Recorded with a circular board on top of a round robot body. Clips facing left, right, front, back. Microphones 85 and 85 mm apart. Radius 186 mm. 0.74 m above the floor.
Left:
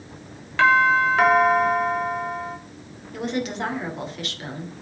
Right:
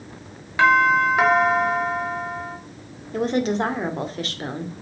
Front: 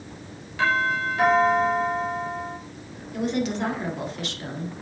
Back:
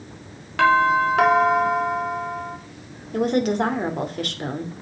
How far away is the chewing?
No chewing in this recording.